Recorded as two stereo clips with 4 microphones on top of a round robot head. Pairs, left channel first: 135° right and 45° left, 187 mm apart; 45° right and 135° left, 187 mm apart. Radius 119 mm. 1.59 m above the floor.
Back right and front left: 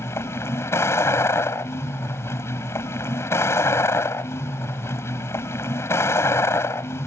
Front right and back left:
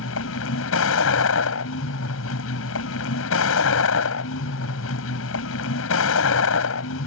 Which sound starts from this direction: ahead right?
A vehicle, at 0.0 s.